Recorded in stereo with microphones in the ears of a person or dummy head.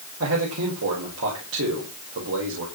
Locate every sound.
0.2 s a man speaking: 85° right, 6 m